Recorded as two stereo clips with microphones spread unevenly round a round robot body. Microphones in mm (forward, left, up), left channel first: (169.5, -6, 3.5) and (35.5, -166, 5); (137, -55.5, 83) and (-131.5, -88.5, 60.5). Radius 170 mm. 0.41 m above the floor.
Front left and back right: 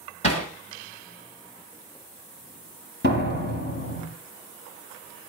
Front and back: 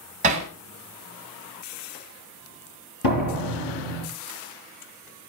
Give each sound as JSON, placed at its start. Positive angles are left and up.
{"t": 0.2, "sound": "hammering", "azimuth_deg": 120, "distance_m": 2.5}
{"t": 3.0, "sound": "a door slam", "azimuth_deg": 15, "distance_m": 8.0}